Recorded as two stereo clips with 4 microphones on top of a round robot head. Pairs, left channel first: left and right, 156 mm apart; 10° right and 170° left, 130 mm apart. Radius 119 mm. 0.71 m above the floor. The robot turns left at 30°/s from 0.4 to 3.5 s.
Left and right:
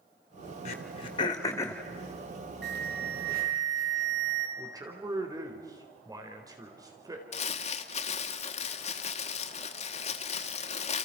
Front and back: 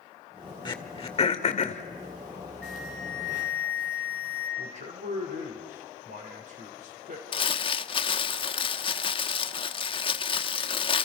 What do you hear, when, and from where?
0.7 s throat clearing: 45° left, 2 m; by 1.8 s 10° left, 2 m
2.6 s an alarm: 90° right, 4.5 m; by 4.5 s 120° right, 4.5 m
4.6 s a man speaking: 155° right, 4 m
7.3 s crumpling: 40° left, 1.1 m